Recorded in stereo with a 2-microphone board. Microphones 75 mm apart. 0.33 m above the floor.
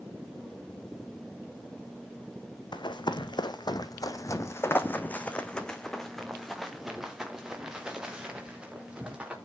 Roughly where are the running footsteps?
Left.